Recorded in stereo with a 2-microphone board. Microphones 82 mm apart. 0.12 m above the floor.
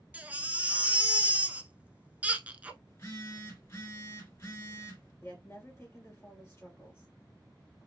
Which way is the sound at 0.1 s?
20° right (ahead or behind).